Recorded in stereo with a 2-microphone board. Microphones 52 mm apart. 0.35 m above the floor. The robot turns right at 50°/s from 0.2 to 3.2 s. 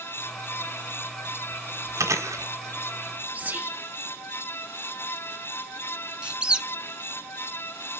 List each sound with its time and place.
2.0 s chewing: 70° right (ahead or behind), 1.8 m; by 3.6 s 40° right (ahead or behind), 1.8 m
3.3 s whispering: 30° right (ahead or behind), 1.5 m
6.2 s a squeak: 20° right (ahead or behind), 0.9 m